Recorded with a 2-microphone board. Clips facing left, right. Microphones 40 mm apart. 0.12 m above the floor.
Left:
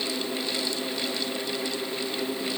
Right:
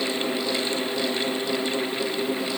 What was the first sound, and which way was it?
Only background noise.